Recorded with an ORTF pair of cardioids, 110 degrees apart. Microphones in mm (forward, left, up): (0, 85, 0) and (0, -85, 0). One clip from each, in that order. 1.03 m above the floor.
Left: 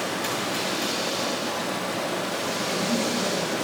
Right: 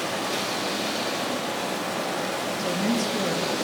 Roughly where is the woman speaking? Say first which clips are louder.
Even; ahead right.